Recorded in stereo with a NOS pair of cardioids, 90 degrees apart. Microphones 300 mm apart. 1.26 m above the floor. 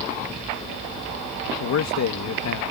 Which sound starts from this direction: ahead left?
A man speaking, at 1.6 s.